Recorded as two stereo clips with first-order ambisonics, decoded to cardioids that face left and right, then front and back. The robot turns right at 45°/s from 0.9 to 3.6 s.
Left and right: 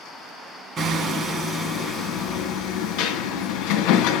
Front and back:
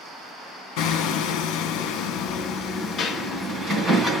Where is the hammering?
25° right, 2.5 m; by 4.2 s 95° left, 2.5 m.